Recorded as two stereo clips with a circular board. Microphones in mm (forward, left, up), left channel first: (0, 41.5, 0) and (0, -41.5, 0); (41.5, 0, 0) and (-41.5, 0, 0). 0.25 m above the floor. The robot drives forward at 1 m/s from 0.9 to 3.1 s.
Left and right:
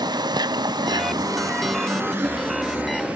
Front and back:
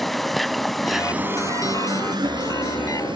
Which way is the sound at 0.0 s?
90° right.